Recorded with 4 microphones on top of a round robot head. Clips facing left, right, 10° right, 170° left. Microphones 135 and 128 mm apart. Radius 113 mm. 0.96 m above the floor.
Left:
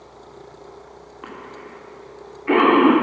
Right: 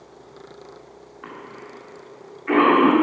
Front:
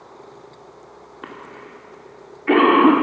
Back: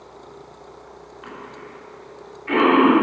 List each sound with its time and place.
1.2 s a cough: 20° left, 2.5 m